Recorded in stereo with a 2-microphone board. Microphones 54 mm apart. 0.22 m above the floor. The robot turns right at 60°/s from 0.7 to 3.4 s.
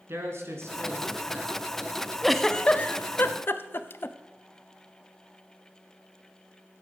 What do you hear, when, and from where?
0.1 s a man speaking: 65° right, 3 m; by 1.6 s 10° right, 3 m
2.2 s a giggle: centre (ahead or behind), 0.6 m; by 4.2 s 45° left (ahead or behind), 0.6 m